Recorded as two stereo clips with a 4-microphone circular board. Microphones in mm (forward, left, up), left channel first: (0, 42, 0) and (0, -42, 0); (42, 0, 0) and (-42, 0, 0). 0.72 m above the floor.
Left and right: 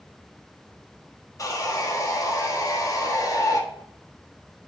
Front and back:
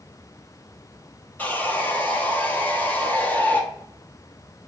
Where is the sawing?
60° left, 1.1 m.